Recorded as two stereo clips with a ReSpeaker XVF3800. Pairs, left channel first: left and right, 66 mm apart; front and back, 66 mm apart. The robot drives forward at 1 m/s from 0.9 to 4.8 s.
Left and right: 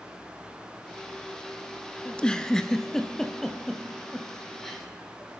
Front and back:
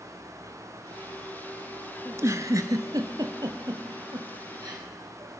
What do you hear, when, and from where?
2.0 s a giggle: 155° left, 0.6 m; by 4.8 s 175° left, 3 m